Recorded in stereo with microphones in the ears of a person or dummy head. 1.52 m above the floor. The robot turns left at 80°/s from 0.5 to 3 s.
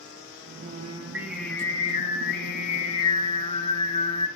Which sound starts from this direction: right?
Singing, at 0.6 s.